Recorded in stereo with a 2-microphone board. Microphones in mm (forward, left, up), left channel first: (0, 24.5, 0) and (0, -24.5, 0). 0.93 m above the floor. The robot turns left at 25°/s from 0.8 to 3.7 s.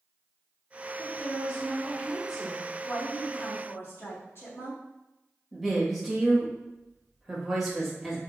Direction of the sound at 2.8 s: 40° left (ahead or behind).